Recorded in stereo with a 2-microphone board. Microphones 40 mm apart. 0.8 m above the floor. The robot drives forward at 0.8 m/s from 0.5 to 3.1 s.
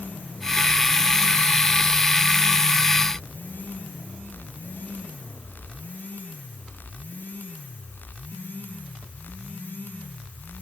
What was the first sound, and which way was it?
Only background noise.